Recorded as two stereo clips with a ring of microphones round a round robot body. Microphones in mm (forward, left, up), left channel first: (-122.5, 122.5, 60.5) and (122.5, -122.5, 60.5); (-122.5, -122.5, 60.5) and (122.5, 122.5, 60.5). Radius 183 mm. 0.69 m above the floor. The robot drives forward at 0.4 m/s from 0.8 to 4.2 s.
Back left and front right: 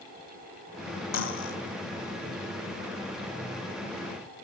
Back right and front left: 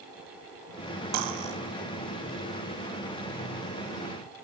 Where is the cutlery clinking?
90° left, 1.8 m; by 1.6 s 95° left, 1.8 m.